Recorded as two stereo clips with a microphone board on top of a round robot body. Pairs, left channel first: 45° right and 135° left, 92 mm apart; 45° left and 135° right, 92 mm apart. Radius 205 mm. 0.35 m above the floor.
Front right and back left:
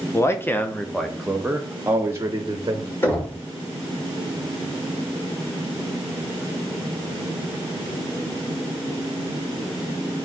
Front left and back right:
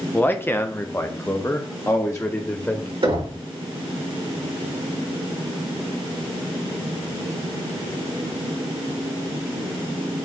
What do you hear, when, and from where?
0.1 s a man speaking: 10° right, 1.3 m; by 2.9 s 100° left, 1.6 m
3.0 s knocking: 110° right, 4.5 m